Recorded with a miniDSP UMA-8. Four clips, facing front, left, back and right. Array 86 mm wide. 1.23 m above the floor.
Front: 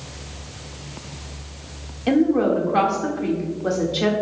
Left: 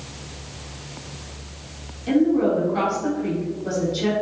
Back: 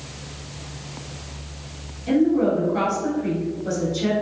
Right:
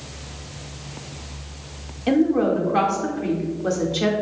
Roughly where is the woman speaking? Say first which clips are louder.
Even, front 1 dB; ahead right.